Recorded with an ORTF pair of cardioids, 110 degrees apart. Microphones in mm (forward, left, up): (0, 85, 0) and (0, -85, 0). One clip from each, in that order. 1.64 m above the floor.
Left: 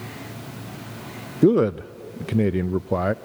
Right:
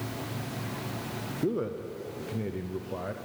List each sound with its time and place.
1.4 s a man speaking: 60° left, 0.5 m